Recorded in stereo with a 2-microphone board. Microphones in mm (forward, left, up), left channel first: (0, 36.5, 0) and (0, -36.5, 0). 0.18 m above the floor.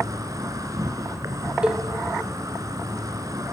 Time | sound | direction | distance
0.0 | an insect | 55° right (ahead or behind) | 1.4 m
1.6 | a cowbell | 15° right (ahead or behind) | 1.7 m